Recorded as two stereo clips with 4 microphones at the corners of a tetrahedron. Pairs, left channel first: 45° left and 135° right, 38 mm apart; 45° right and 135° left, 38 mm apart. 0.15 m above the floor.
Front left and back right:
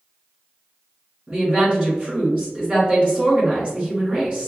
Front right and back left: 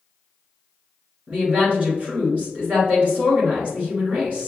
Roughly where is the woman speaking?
Behind.